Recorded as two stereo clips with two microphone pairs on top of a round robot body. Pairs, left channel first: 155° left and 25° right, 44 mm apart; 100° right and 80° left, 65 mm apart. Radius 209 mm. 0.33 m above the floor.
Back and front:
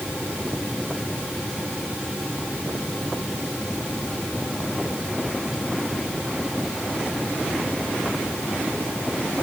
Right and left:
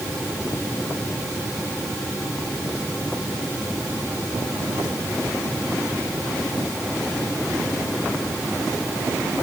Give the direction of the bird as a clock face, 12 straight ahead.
I don't hear a bird.